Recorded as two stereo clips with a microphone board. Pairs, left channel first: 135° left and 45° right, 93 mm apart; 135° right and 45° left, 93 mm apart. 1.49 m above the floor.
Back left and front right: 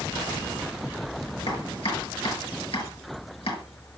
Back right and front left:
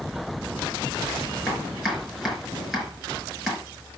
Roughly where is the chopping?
Behind left.